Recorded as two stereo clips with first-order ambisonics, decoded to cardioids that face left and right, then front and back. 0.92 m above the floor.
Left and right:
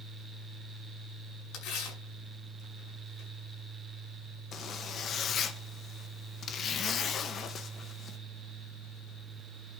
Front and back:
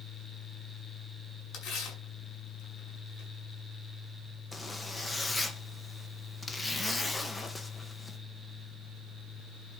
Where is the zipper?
65° left, 1.0 m.